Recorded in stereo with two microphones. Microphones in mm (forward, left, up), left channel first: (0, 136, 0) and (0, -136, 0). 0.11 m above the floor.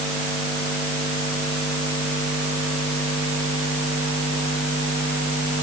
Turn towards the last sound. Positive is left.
No sound to turn to.